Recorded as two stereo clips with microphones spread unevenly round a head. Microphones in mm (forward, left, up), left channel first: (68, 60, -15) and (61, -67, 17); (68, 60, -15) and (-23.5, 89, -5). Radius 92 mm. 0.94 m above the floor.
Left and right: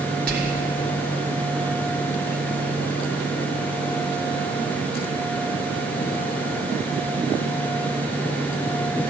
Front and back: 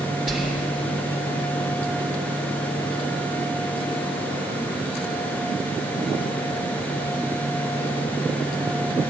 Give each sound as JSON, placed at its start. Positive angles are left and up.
{"t": 0.3, "sound": "whispering", "azimuth_deg": -110, "distance_m": 1.8}